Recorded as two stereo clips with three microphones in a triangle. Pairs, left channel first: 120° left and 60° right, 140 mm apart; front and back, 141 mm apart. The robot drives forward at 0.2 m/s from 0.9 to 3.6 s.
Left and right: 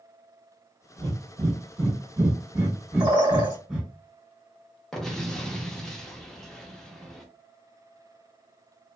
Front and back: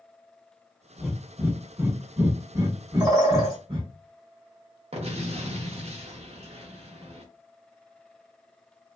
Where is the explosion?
155° right, 0.6 m.